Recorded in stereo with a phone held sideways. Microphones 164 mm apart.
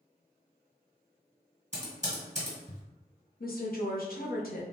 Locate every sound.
1.7 s typing on a keyboard: 45° right (ahead or behind), 1.8 m
3.4 s a woman speaking: 65° left (ahead or behind), 0.8 m